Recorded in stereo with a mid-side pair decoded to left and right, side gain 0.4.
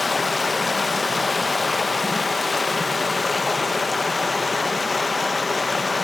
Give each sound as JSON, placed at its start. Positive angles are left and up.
{"t": 0.0, "sound": "running water", "azimuth_deg": 25, "distance_m": 1.7}